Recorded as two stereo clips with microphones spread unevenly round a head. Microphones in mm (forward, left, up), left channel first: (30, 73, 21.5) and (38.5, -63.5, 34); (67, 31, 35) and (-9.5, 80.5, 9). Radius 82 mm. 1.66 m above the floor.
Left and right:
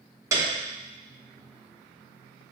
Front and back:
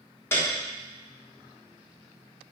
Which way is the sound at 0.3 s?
45° right.